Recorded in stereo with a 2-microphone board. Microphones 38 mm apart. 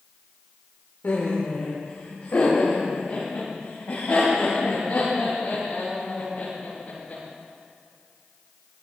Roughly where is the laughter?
Left.